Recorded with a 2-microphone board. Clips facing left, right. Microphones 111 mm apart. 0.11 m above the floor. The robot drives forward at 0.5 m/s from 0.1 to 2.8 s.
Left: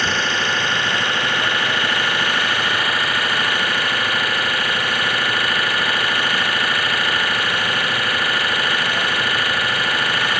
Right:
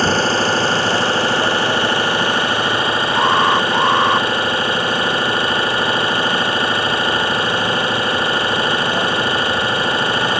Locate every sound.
0.0 s an engine running: 35° right (ahead or behind); by 10.4 s 30° right (ahead or behind)
3.1 s an alarm: 70° right (ahead or behind)